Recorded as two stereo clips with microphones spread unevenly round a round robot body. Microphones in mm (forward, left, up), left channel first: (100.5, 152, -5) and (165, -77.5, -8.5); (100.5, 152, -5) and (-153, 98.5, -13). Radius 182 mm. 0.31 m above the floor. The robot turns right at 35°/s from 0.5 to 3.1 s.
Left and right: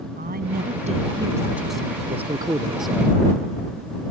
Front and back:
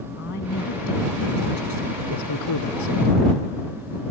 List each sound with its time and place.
0.1 s a woman speaking: 30° right; by 2.0 s 25° left
2.1 s a man speaking: 10° right; by 3.4 s 25° left